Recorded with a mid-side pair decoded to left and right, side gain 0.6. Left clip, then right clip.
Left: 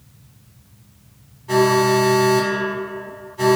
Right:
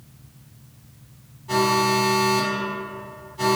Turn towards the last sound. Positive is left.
turn(degrees=25)